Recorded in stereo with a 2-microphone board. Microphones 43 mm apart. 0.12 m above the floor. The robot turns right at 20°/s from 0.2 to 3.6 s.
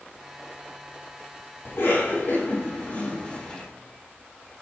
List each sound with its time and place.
1.6 s a cough: 60° left (ahead or behind), 3.5 m; by 3.7 s 25° left (ahead or behind), 3.5 m